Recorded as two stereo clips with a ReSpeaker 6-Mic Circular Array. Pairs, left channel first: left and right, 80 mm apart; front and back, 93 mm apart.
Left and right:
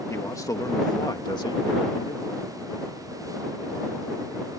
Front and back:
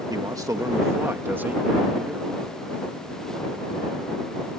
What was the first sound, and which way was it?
A man speaking, 140° left.